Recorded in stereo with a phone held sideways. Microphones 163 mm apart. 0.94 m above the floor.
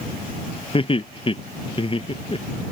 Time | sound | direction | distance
0.7 | laughter | 35° left (ahead or behind) | ?